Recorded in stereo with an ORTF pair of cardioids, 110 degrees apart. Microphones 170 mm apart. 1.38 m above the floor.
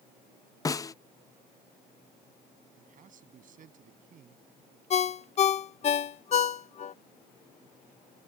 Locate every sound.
0.7 s a snare drum: 20° left
2.8 s a man speaking: 55° right
4.9 s a ringtone: 45° left